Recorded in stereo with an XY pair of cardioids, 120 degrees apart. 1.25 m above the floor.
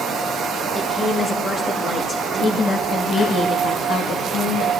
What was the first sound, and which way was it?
A woman speaking, 20° left.